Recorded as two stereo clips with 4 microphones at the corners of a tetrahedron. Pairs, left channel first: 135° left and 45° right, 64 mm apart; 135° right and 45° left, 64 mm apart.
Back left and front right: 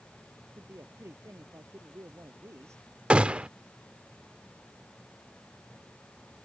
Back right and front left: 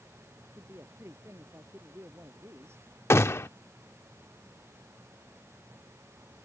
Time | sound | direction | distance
0.6 | a man speaking | straight ahead | ?
3.1 | a gunshot | 110° right | ?